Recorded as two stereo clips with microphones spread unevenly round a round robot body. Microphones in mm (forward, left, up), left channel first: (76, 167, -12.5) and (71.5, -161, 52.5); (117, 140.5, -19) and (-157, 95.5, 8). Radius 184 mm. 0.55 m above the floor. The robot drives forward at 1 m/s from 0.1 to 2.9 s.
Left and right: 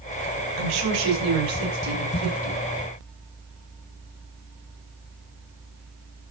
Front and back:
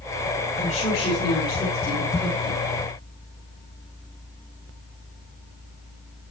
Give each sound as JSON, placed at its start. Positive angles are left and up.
{"t": 0.6, "sound": "a woman speaking", "azimuth_deg": -60, "distance_m": 7.0}